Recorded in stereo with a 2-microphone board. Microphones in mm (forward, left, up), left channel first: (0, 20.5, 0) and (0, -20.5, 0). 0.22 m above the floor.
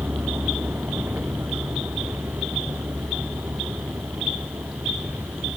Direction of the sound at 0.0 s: 65° right (ahead or behind).